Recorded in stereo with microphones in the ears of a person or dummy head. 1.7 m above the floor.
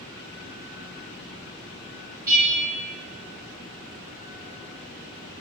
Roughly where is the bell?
Centre.